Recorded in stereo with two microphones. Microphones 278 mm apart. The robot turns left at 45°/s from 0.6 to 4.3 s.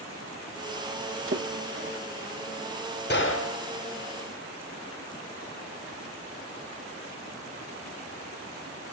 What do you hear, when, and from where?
1.3 s a splash: 45° right (ahead or behind), 0.6 m; by 2.0 s 40° right (ahead or behind), 0.6 m
3.1 s a gunshot: 40° left (ahead or behind), 0.7 m; by 3.6 s 60° left (ahead or behind), 0.7 m